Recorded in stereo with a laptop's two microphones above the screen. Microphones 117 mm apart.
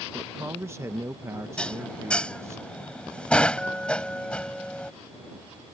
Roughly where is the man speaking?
Right.